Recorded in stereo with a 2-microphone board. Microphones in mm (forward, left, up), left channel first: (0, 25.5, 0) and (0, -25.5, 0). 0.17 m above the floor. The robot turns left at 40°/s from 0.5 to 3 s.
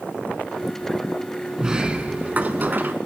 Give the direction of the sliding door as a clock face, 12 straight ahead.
1 o'clock.